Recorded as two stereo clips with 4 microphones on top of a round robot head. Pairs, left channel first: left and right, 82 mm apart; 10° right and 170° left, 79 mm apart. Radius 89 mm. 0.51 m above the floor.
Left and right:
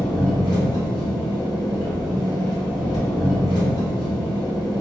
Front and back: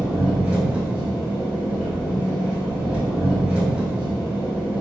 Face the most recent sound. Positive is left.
turn(degrees=95)